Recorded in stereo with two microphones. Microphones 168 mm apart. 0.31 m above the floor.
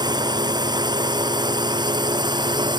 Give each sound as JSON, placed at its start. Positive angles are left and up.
{"t": 0.0, "sound": "a drone", "side_deg": -25}